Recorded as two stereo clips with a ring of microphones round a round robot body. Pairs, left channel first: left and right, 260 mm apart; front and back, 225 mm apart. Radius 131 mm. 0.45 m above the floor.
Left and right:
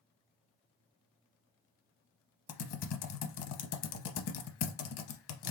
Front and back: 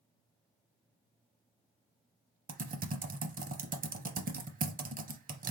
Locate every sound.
2.5 s typing on a keyboard: 125° left, 0.7 m